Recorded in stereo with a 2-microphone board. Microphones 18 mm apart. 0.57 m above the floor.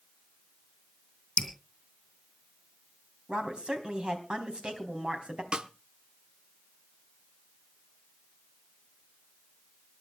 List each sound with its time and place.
1.4 s dripping: 55° left (ahead or behind), 2.5 m
3.3 s a woman speaking: 60° right (ahead or behind), 3.5 m
5.5 s a snare drum: 55° right (ahead or behind), 0.7 m